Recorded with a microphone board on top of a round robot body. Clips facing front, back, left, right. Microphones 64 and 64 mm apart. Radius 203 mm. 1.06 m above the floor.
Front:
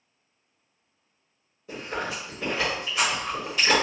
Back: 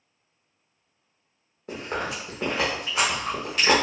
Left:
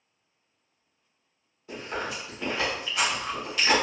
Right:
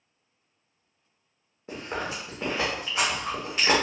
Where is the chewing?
145° right, 0.6 m.